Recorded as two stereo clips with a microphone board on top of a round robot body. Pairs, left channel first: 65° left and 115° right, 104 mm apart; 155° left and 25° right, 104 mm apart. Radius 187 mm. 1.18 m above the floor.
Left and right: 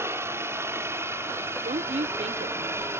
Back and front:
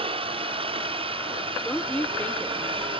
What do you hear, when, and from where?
0.0 s a helicopter: 50° right
1.6 s a woman speaking: 125° right